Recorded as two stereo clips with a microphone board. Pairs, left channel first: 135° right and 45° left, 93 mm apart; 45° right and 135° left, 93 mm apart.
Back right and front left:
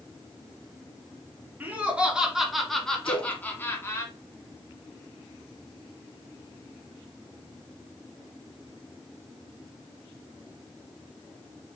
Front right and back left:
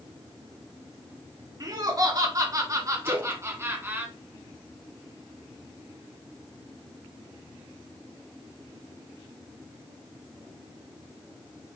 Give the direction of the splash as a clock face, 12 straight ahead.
5 o'clock.